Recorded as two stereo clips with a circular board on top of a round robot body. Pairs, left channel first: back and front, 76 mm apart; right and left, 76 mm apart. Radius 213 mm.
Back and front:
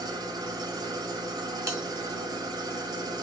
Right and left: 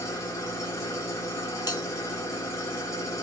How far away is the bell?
About 1.4 m.